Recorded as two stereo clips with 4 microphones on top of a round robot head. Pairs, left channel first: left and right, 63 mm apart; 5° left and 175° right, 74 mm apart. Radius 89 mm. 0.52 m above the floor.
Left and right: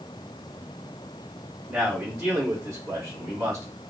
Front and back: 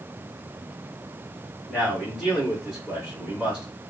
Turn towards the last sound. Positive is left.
turn(degrees=-95)